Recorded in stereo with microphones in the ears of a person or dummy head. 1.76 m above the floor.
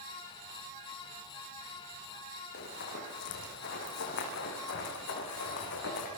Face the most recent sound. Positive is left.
turn(degrees=65)  # may be behind; listen again after turning